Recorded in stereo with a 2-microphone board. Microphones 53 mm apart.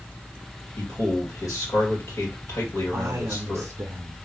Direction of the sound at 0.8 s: 75° left (ahead or behind).